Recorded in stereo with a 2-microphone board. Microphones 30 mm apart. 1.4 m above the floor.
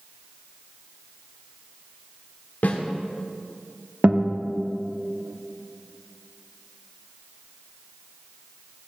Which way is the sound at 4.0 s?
35° right (ahead or behind).